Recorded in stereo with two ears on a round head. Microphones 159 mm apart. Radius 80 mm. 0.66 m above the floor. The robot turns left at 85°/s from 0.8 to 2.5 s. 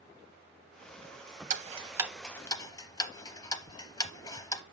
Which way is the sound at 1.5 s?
45° right (ahead or behind).